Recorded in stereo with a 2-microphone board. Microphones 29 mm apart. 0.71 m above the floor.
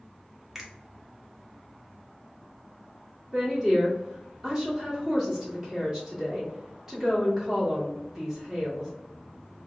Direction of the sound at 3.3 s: 15° right (ahead or behind).